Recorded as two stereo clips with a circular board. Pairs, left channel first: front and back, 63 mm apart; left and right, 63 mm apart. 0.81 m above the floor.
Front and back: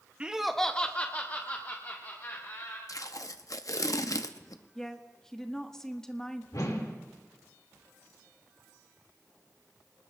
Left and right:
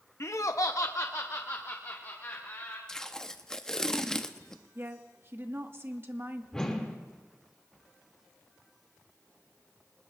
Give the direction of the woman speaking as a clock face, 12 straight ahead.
3 o'clock.